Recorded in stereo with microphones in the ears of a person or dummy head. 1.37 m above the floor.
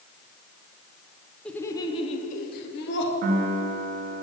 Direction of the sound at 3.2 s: 50° right (ahead or behind).